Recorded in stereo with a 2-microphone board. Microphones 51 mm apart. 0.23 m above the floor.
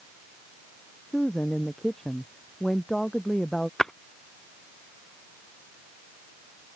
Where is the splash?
10° left (ahead or behind).